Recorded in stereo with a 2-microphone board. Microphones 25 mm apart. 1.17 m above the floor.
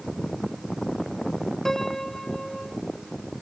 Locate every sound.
1.6 s a piano: 15° left (ahead or behind)